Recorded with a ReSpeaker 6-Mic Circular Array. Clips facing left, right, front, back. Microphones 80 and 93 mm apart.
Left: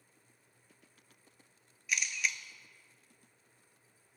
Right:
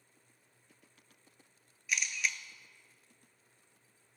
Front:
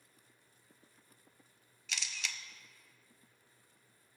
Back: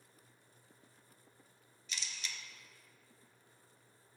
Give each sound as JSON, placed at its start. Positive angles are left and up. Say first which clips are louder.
{"t": 1.9, "sound": "a camera shutter", "louder": "even, front 3 dB", "azimuth_deg": 0, "distance_m": 0.8}